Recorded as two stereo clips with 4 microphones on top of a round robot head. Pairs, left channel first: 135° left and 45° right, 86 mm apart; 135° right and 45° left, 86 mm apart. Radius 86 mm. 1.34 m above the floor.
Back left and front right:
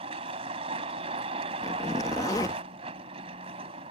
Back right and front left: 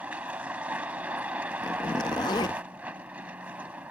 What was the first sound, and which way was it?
A vehicle, 30° right.